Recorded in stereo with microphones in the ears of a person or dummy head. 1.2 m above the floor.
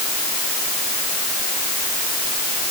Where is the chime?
No chime in this recording.